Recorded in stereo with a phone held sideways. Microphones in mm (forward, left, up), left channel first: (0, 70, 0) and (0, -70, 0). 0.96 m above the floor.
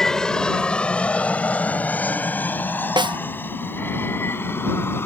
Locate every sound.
0.0 s an aircraft: 5° left (ahead or behind); by 5.1 s 15° left (ahead or behind)
3.0 s a snare drum: 35° right (ahead or behind)